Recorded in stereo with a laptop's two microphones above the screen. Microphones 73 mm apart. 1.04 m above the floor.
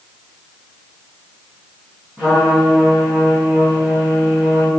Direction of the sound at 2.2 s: 5° right (ahead or behind).